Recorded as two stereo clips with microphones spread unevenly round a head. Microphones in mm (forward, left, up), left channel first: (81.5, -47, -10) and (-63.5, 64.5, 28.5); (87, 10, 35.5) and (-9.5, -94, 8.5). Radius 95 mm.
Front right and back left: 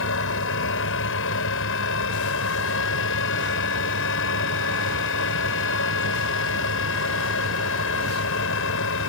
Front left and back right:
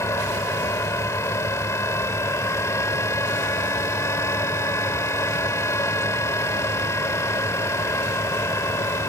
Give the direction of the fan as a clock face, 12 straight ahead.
1 o'clock.